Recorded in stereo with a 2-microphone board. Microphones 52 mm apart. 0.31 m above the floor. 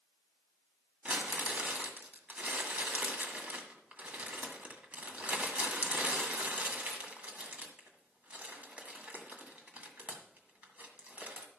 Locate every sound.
1.1 s crumpling: 25° right (ahead or behind), 1.8 m